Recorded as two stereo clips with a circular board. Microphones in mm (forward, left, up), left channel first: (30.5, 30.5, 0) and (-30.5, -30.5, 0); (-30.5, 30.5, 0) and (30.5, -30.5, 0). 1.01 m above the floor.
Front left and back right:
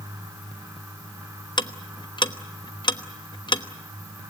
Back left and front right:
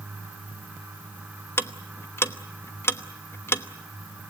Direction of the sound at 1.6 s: 75° left.